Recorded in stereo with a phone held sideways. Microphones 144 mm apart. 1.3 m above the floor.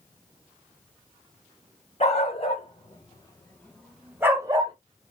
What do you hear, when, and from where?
2.0 s a dog barking: 45° left (ahead or behind), 2 m; by 4.7 s 35° right (ahead or behind), 1.2 m